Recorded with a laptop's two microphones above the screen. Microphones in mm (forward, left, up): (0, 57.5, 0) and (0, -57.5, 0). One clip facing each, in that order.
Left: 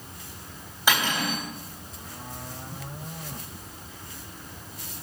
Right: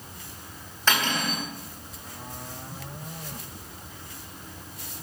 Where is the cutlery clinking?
10° left (ahead or behind), 4 m.